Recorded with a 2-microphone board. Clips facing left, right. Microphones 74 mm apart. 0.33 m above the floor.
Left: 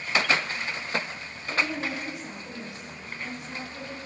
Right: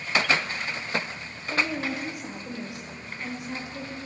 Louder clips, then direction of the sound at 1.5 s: Right 1 dB; 20° right (ahead or behind).